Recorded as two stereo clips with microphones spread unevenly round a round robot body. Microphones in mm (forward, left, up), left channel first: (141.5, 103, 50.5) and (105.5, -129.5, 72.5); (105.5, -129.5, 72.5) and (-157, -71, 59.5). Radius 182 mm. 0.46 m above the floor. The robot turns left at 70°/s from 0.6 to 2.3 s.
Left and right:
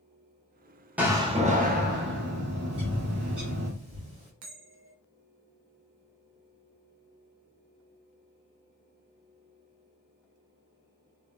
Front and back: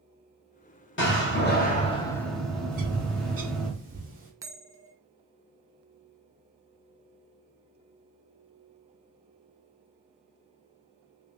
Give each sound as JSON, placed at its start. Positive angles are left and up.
{"t": 1.0, "sound": "a door slam", "azimuth_deg": -10, "distance_m": 1.0}
{"t": 2.7, "sound": "a bird", "azimuth_deg": -165, "distance_m": 1.5}
{"t": 4.4, "sound": "a bell", "azimuth_deg": -115, "distance_m": 0.6}